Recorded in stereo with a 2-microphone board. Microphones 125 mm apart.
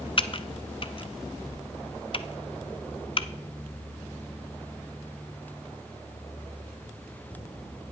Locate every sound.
0.2 s typing on a keyboard: 45° left (ahead or behind), 0.5 m